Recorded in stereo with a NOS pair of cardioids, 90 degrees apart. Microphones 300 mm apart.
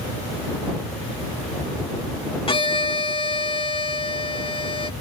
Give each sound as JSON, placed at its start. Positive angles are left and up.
{"t": 2.5, "sound": "a violin", "azimuth_deg": 15}